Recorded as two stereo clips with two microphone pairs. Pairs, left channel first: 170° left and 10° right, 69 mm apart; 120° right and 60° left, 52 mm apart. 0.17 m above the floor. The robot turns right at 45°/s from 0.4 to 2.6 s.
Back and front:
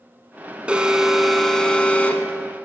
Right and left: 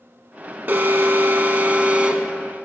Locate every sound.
0.7 s an alarm: 55° left, 0.9 m; by 2.3 s 130° left, 0.9 m